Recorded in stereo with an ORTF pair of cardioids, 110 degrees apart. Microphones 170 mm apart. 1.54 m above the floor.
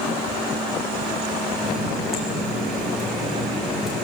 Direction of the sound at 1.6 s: Straight ahead.